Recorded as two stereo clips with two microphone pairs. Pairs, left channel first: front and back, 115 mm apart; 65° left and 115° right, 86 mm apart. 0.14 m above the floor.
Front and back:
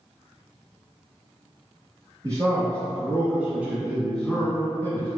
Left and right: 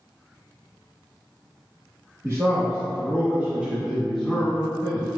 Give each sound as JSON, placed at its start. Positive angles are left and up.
{"t": 2.2, "sound": "a man speaking", "azimuth_deg": -135, "distance_m": 1.4}